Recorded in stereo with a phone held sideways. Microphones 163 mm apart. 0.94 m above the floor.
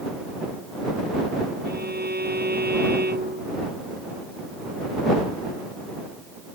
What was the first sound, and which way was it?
A violin, 75° right (ahead or behind).